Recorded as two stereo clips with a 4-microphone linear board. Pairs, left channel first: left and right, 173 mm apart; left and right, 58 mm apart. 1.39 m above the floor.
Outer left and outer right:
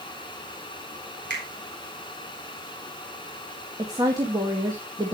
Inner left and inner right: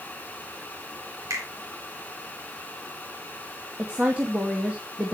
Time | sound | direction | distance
1.3 | a finger snap | 75° right (ahead or behind) | 4 m
3.8 | a woman speaking | 20° right (ahead or behind) | 1.8 m